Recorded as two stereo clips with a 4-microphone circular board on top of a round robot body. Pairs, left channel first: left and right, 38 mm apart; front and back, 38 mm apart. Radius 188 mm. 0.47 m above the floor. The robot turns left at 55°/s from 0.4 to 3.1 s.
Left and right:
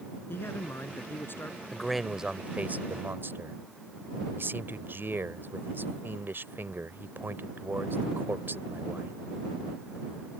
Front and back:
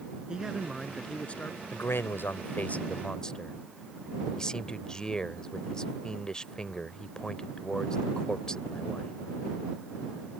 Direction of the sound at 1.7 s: 10° left.